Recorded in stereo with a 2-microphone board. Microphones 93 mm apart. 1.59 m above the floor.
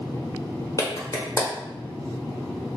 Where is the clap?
40° left (ahead or behind), 0.8 m.